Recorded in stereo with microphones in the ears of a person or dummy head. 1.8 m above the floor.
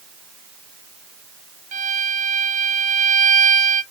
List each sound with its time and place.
1.7 s a violin: 35° right (ahead or behind), 0.8 m